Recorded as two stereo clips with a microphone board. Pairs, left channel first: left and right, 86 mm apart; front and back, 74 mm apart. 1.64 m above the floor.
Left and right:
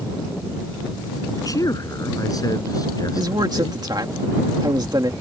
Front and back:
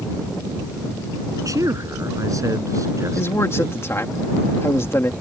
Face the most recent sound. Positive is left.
turn(degrees=-55)